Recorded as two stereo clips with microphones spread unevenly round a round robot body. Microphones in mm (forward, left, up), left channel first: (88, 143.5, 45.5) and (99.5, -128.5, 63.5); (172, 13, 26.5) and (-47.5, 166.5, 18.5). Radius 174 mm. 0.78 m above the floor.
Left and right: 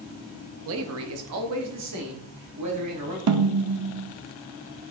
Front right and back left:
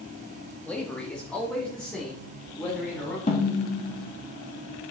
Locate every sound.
0.7 s a man speaking: 120° right, 0.7 m
3.3 s a snare drum: 105° right, 0.6 m